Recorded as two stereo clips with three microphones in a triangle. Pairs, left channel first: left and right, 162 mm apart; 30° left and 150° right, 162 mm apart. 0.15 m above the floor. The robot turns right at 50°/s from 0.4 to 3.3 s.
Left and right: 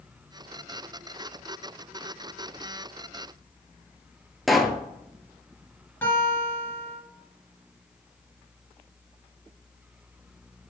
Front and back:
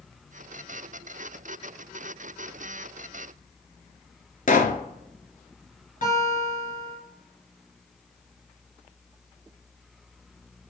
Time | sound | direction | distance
4.5 | a pop | straight ahead | 0.6 m
6.0 | a guitar | 20° left | 2.5 m